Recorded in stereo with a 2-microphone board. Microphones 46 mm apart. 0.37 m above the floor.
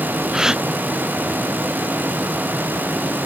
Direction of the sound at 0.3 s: 15° right (ahead or behind).